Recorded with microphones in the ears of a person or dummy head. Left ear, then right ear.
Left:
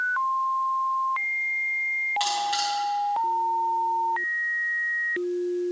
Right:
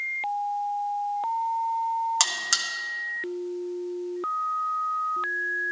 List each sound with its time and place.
2.2 s a buzzer: 50° right (ahead or behind), 1.0 m